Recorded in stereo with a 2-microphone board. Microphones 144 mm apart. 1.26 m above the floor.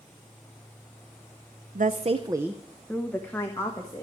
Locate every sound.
1.8 s a woman speaking: 75° right (ahead or behind), 0.6 m; by 4.0 s 25° left (ahead or behind), 1.9 m